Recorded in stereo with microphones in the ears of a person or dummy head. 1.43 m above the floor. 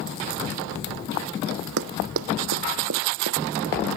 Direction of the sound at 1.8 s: 70° right (ahead or behind).